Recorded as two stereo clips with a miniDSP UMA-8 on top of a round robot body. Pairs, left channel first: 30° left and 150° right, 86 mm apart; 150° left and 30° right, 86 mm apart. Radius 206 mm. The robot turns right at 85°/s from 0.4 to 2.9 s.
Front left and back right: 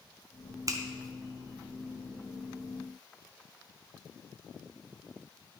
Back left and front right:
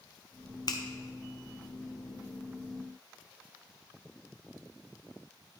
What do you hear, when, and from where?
0.7 s a finger snap: 170° left, 1.3 m; by 0.8 s straight behind, 1.3 m